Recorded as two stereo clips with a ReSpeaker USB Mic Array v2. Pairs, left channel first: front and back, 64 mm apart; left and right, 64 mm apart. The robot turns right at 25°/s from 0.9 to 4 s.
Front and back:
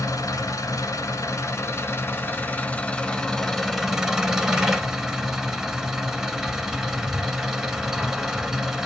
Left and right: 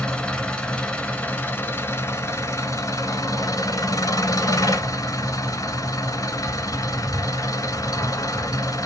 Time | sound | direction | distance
0.0 | an engine running | 20° left | 1.2 m